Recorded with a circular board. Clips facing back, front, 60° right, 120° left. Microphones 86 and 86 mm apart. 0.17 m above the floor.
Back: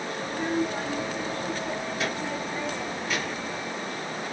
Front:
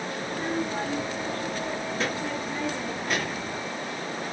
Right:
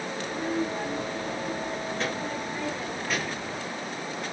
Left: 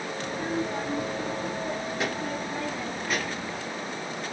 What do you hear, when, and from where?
0.2 s a child speaking: 85° left, 1.4 m; by 3.6 s 30° left, 2.5 m